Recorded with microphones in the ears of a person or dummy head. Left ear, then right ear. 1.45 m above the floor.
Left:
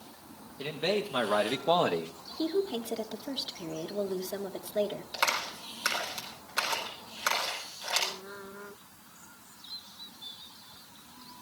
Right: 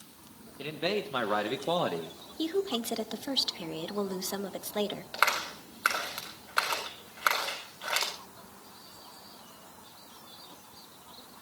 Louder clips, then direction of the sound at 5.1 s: Right 2 dB; 35° right (ahead or behind).